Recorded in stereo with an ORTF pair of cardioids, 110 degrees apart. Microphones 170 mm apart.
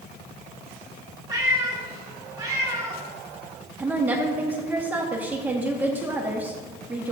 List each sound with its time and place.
1.3 s a cat meowing: 20° right, 3.5 m
3.8 s a woman speaking: 10° right, 1.7 m